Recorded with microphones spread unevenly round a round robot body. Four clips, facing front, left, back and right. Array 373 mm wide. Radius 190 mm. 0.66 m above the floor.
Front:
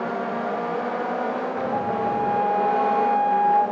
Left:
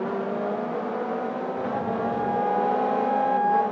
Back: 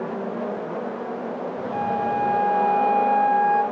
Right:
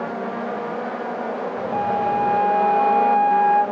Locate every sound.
1.7 s a flute: straight behind, 3 m